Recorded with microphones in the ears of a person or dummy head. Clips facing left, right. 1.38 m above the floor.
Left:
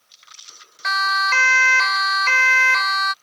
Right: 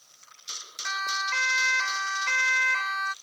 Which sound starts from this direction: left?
A siren, at 0.8 s.